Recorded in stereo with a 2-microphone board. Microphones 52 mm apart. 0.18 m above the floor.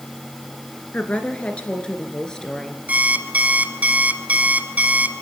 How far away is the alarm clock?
About 1.5 m.